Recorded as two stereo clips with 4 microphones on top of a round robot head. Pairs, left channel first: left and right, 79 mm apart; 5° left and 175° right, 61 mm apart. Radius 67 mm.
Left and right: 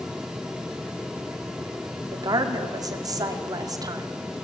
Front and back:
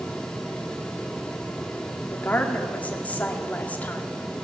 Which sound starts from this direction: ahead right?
A woman speaking, at 2.1 s.